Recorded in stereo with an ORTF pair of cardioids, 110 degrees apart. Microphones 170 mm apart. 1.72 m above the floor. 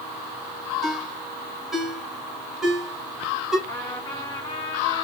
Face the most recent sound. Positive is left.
turn(degrees=20)